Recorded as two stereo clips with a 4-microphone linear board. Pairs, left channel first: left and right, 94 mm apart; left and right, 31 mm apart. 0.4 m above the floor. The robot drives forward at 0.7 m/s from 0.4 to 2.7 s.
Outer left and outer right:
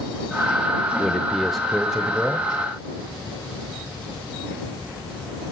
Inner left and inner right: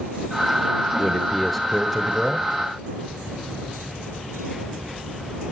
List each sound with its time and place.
1.0 s a man speaking: centre (ahead or behind), 0.8 m